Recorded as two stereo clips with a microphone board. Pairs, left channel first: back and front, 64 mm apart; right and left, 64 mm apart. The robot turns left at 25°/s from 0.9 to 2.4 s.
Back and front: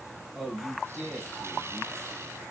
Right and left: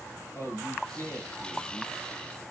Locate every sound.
0.3 s a man speaking: 85° right, 1.7 m; by 1.9 s 110° right, 1.7 m